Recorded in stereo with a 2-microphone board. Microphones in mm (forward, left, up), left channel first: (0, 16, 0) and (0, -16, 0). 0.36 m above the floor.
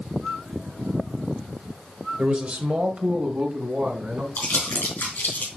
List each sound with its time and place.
2.2 s a man speaking: 30° right (ahead or behind), 1.1 m; by 4.3 s 45° right (ahead or behind), 3 m
4.4 s crumpling: 70° left (ahead or behind), 4.5 m